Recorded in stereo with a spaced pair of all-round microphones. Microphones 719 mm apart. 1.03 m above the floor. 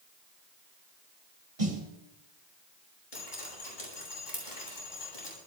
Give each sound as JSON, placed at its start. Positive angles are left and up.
{"t": 1.6, "sound": "a snare drum", "side_deg": -60, "distance_m": 4.0}
{"t": 3.1, "sound": "dripping", "side_deg": 85, "distance_m": 8.0}